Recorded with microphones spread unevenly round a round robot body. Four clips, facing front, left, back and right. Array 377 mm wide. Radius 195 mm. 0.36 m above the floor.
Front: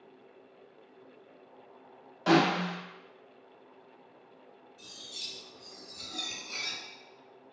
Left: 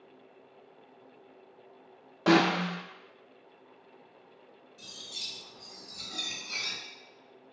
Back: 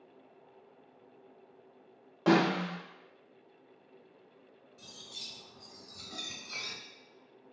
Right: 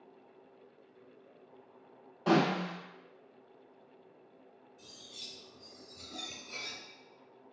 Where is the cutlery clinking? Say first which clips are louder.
Left 5 dB, front 2 dB; 135° left, 1.7 m.